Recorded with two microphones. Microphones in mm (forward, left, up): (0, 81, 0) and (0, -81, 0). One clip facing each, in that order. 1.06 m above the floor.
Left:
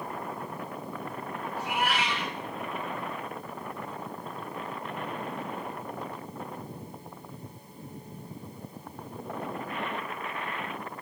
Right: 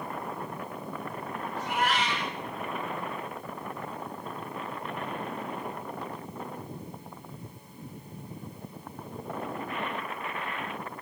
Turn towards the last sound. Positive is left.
turn(degrees=10)  # may be behind; listen again after turning